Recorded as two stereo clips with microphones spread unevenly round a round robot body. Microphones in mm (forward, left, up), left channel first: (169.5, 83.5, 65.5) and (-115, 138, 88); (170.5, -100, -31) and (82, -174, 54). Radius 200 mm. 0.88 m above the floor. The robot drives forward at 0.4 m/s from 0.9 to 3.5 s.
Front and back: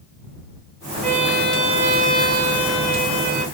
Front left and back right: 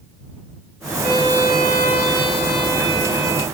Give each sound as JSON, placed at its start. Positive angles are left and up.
{"t": 1.0, "sound": "a violin", "azimuth_deg": 80, "distance_m": 0.8}